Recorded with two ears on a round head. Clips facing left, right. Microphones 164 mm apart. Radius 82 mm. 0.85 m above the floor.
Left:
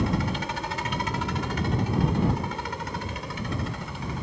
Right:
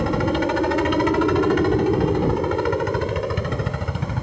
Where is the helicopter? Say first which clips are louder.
Right 7 dB; 50° right (ahead or behind).